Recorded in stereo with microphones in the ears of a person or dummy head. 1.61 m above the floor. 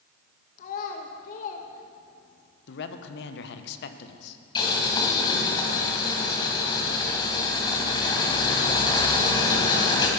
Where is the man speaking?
70° left (ahead or behind), 1.2 m.